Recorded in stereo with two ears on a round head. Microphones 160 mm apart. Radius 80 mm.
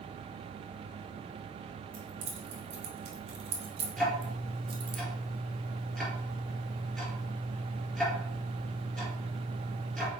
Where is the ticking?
5° left (ahead or behind), 4 m.